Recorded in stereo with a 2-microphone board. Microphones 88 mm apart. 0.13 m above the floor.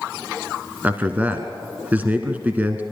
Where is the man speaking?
20° right (ahead or behind), 1.2 m.